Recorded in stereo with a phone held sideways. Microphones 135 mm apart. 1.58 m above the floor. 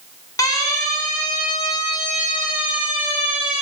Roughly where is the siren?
Left.